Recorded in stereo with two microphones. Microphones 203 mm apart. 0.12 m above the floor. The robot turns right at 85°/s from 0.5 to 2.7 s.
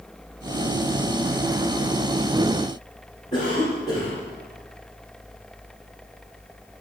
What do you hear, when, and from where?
3.3 s a cough: 35° left (ahead or behind), 3.5 m